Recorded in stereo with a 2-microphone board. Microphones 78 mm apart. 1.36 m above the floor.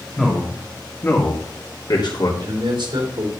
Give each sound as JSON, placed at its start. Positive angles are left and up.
{"t": 0.2, "sound": "a man speaking", "side_deg": 5, "distance_m": 2.5}
{"t": 2.4, "sound": "a man speaking", "side_deg": -75, "distance_m": 3.5}